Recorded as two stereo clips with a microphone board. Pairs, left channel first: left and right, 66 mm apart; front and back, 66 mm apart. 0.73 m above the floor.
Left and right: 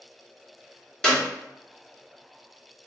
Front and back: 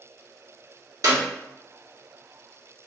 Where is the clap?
170° left, 1.0 m.